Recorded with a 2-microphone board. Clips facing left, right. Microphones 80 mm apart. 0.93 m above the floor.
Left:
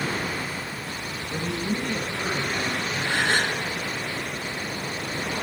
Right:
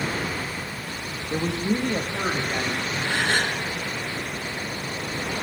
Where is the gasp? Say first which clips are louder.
Even; 20° left (ahead or behind), 2 m.